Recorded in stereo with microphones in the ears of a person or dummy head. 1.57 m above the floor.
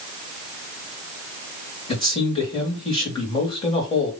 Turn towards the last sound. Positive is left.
turn(degrees=30)  # may be behind; listen again after turning